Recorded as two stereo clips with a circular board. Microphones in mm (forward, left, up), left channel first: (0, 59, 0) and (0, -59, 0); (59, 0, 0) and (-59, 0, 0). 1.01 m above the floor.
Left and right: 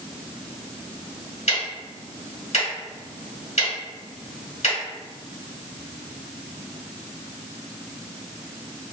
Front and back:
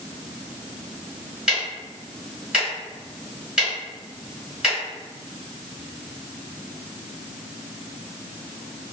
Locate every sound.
1.5 s ticking: 95° left, 1.8 m